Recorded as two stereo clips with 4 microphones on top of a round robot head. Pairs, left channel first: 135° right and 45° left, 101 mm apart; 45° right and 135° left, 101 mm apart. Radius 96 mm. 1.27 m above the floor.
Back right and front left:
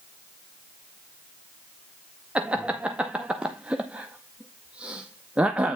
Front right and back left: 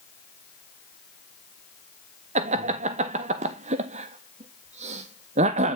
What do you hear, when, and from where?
2.4 s laughter: 125° left, 0.5 m